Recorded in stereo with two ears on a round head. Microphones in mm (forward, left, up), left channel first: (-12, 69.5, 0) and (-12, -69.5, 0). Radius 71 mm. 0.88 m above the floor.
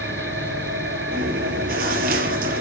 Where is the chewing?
65° right (ahead or behind), 4 m.